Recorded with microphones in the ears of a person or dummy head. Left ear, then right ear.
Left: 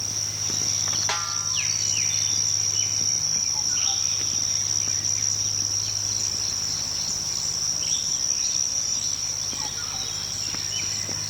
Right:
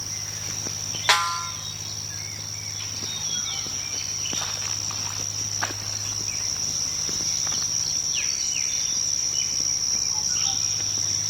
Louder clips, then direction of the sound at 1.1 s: Right 5 dB; 65° right (ahead or behind).